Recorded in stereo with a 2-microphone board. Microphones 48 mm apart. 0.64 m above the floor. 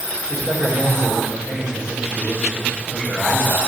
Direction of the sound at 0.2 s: 15° right (ahead or behind).